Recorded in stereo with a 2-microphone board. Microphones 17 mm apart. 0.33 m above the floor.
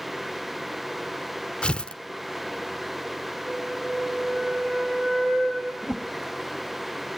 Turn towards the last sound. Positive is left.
turn(degrees=-30)  # may be behind; listen again after turning